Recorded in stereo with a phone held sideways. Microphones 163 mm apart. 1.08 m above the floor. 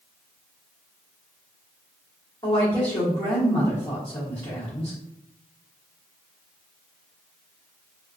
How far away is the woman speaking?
About 1.4 m.